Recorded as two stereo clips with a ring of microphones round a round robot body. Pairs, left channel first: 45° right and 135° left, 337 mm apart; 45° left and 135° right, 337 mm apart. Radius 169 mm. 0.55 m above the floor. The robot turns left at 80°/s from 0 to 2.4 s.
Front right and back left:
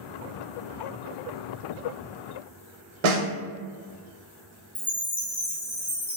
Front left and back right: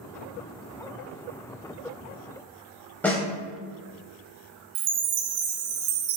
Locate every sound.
3.0 s a snare drum: 130° left, 0.8 m
4.8 s a chime: 140° right, 0.6 m